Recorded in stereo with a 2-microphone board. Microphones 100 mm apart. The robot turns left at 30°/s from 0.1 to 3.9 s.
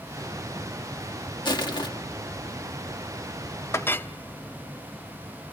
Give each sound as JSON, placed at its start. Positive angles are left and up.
{"t": 1.4, "sound": "crushing", "side_deg": 45, "distance_m": 1.5}
{"t": 3.7, "sound": "a clink", "side_deg": 25, "distance_m": 0.5}